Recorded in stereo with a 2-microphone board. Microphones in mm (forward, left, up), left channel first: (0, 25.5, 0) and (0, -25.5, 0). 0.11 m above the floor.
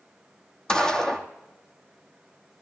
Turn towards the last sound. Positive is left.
turn(degrees=15)  # may be behind; listen again after turning